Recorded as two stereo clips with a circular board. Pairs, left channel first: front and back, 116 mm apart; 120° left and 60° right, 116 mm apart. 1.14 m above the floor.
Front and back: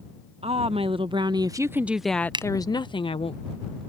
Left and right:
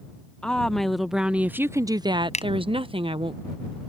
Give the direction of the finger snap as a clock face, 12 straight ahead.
8 o'clock.